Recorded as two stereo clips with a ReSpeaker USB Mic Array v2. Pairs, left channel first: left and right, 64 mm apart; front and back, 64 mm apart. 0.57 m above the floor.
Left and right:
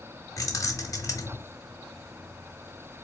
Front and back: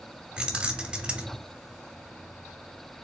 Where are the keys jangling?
110° left, 0.7 m.